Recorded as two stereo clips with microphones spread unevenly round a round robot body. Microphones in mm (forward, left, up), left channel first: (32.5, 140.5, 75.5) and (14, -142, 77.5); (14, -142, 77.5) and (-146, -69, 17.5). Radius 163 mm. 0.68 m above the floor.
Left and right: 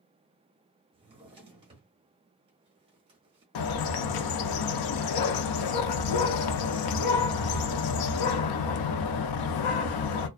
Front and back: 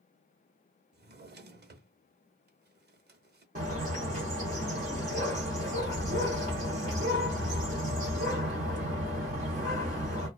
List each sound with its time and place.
0.9 s a drawer: 165° right, 0.8 m
3.5 s a bird: 90° left, 0.5 m